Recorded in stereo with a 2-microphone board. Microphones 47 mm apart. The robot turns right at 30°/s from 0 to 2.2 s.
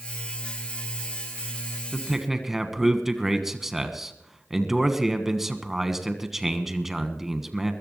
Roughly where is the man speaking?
Centre.